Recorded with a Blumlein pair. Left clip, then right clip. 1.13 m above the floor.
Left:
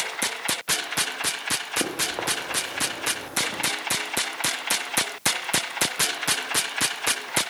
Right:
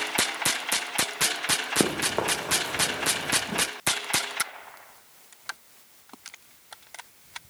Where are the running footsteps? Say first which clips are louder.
Right 1 dB; 50° right, 5 m; by 3.6 s 35° right, 5.5 m.